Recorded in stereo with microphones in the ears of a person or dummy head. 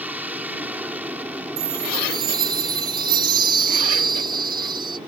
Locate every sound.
0.0 s an aircraft: 10° right (ahead or behind)
1.6 s a chime: 30° right (ahead or behind)